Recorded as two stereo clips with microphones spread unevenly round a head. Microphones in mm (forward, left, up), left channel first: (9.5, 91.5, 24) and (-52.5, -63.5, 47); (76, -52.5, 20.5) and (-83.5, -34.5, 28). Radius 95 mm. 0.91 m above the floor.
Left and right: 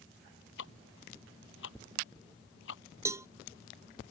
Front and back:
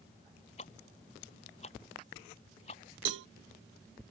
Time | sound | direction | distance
0.6 | ticking | 55° left | ?
3.0 | a cowbell | 175° left | ?